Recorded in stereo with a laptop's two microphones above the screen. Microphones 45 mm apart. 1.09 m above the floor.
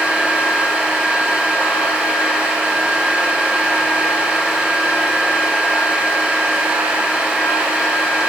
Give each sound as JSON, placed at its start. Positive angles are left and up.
{"t": 0.0, "sound": "a fan", "side_deg": -20, "distance_m": 1.2}